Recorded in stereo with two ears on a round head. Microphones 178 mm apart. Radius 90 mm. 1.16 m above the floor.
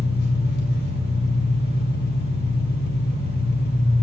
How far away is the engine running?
About 1.5 m.